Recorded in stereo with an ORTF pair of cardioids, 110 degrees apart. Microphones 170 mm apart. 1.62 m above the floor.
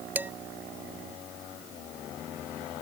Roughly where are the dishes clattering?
Ahead.